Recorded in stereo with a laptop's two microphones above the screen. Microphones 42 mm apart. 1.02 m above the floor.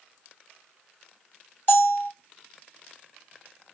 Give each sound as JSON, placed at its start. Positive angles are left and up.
{"t": 1.7, "sound": "a bell", "side_deg": 55, "distance_m": 2.0}